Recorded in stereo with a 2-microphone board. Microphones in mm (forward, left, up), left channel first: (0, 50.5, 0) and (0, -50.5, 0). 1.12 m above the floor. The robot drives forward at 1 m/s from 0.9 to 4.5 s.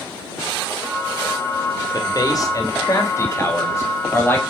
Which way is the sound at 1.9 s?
45° left (ahead or behind).